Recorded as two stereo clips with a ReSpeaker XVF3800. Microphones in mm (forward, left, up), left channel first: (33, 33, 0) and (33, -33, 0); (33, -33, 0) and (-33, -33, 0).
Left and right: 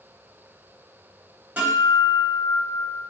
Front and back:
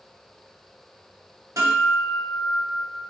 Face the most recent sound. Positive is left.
turn(degrees=-150)